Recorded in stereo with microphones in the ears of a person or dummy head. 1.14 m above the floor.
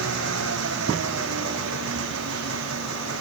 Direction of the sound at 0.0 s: 80° right.